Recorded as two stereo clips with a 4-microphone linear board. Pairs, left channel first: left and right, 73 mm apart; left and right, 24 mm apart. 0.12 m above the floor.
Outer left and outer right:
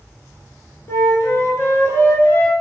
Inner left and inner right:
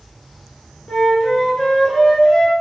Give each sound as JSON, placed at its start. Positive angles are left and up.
{"t": 0.9, "sound": "a flute", "side_deg": 40, "distance_m": 0.8}